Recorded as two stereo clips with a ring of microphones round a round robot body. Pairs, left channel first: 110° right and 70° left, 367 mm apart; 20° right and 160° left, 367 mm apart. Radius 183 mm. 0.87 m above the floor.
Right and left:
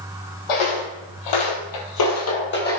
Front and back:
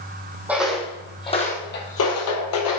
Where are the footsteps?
115° right, 2.5 m; by 2.8 s 45° right, 1.8 m.